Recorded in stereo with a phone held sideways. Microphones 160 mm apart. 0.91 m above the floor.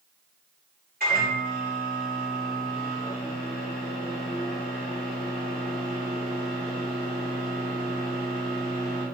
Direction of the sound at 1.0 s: 70° right (ahead or behind).